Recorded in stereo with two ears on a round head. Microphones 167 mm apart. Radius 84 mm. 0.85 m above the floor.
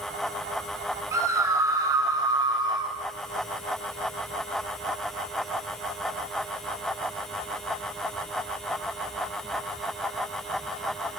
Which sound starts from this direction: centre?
A scream, at 1.1 s.